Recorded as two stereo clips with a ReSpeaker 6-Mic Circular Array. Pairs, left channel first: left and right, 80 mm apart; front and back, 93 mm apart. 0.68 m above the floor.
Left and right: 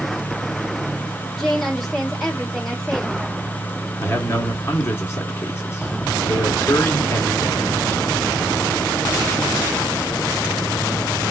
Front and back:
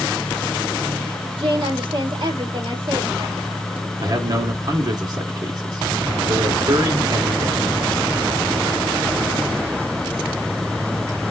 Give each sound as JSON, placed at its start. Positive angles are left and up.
{"t": 1.4, "sound": "a woman speaking", "azimuth_deg": 175, "distance_m": 1.8}
{"t": 4.0, "sound": "a man speaking", "azimuth_deg": 150, "distance_m": 2.0}